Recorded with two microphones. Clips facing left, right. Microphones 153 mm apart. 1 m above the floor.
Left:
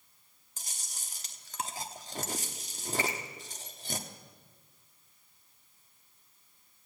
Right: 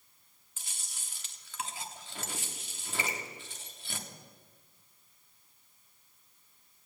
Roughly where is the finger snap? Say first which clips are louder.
Left 3 dB; centre.